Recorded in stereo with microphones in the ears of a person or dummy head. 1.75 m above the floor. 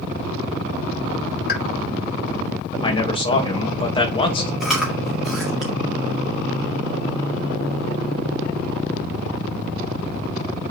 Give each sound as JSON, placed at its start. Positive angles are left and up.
{"t": 1.5, "sound": "a pop", "side_deg": 60, "distance_m": 1.7}
{"t": 2.8, "sound": "a man speaking", "side_deg": 25, "distance_m": 1.7}
{"t": 4.6, "sound": "chewing", "side_deg": 0, "distance_m": 2.0}